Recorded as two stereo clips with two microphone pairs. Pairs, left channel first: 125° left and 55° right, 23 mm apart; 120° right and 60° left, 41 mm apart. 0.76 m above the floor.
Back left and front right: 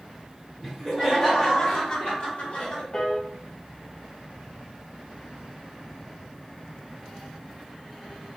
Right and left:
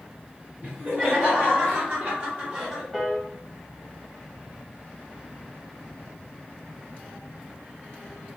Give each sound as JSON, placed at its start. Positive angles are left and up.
{"t": 0.6, "sound": "laughter", "azimuth_deg": 40, "distance_m": 1.8}
{"t": 2.9, "sound": "a piano", "azimuth_deg": 145, "distance_m": 0.8}